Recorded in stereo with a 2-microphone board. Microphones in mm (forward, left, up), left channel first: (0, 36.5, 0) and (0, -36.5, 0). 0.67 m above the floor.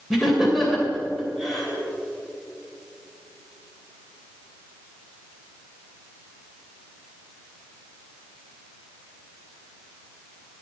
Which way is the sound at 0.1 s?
Centre (ahead or behind).